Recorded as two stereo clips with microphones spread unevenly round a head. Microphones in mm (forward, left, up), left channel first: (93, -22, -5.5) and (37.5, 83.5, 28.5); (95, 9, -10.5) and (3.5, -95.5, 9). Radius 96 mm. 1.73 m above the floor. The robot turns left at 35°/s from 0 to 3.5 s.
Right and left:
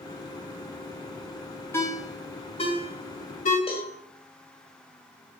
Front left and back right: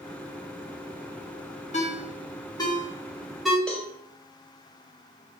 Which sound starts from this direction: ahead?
A ringtone, at 1.7 s.